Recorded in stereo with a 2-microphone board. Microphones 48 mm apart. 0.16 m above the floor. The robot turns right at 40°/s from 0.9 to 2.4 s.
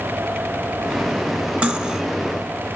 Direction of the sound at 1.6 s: 25° right (ahead or behind).